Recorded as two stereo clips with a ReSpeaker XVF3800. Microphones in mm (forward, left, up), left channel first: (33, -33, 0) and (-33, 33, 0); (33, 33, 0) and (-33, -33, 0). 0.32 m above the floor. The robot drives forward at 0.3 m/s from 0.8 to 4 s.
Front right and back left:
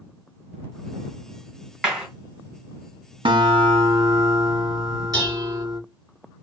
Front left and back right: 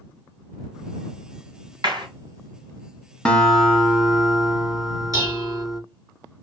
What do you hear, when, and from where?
1.8 s a clap: 140° right, 2.0 m
3.2 s a guitar: 125° left, 0.6 m; by 5.8 s 140° left, 0.8 m
5.1 s dishes clattering: straight behind, 2.5 m